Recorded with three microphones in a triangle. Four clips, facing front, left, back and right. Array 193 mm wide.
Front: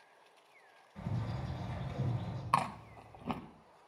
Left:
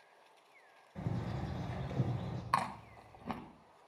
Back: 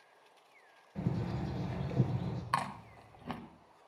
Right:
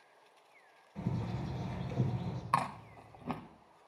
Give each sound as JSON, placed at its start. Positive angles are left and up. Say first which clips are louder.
{"t": 0.9, "sound": "a bird", "louder": "right 2 dB, back 5 dB", "azimuth_deg": 160, "distance_m": 3.5}
{"t": 2.5, "sound": "chewing", "louder": "right 2 dB, front 4 dB", "azimuth_deg": -30, "distance_m": 0.9}